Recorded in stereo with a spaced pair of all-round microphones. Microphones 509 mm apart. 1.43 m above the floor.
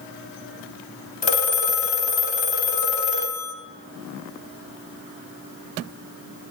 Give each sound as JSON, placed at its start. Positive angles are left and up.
{"t": 1.2, "sound": "a phone ringing", "side_deg": 70, "distance_m": 0.8}